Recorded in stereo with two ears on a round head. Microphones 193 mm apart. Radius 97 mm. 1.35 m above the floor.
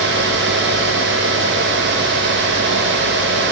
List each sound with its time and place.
Only background noise.